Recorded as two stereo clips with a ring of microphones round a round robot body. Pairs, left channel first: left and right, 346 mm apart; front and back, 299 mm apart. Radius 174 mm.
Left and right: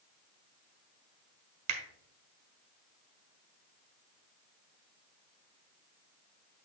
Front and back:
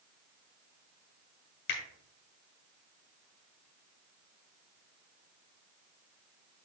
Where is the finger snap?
60° right, 1.3 m.